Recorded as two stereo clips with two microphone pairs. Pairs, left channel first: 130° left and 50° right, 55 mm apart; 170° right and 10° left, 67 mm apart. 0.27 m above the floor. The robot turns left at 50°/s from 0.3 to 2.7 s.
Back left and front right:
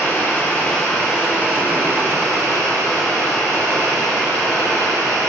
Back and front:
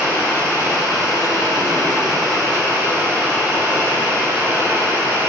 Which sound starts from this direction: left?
Running water, at 0.0 s.